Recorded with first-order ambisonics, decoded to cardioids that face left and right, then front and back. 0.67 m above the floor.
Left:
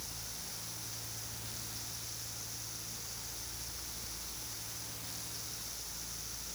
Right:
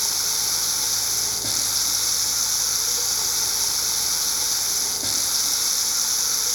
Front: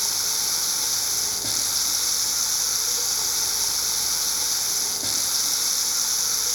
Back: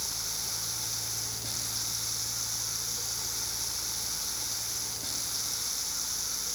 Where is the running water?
60° right.